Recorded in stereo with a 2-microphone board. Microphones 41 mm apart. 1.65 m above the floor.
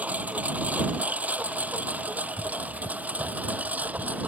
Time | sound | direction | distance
0.0 | a lawn mower | 40° right (ahead or behind) | ?